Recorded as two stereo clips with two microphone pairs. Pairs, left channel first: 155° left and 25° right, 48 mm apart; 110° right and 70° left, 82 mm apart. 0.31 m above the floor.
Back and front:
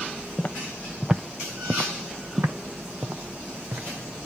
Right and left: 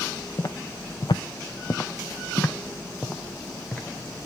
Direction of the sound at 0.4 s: 150° right.